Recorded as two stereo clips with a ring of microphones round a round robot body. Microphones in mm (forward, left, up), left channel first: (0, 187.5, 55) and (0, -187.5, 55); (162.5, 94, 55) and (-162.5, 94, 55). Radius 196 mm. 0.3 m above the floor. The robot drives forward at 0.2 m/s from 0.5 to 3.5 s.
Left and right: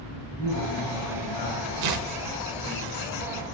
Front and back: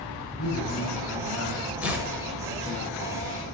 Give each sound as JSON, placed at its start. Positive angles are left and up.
{"t": 0.4, "sound": "a man speaking", "azimuth_deg": 50, "distance_m": 3.0}
{"t": 1.8, "sound": "tearing paper", "azimuth_deg": -95, "distance_m": 0.8}